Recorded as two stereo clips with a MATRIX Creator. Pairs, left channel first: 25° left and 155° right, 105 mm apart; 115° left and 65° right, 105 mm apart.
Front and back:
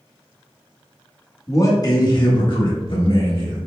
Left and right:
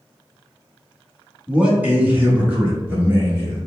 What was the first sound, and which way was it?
A man speaking, 5° left.